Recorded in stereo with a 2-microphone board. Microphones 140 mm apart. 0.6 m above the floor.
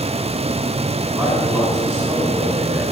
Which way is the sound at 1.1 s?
10° right (ahead or behind).